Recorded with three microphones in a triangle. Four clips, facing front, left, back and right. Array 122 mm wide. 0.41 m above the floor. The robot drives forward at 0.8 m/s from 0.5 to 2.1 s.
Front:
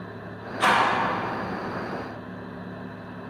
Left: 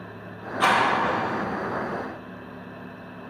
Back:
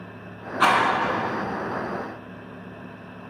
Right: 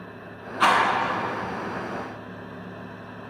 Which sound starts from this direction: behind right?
A rattle, at 0.6 s.